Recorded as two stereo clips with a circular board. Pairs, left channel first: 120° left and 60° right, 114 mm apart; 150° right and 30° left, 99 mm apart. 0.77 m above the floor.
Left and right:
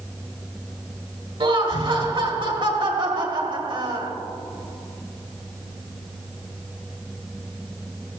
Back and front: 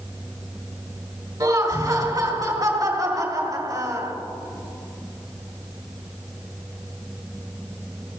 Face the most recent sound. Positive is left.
turn(degrees=-20)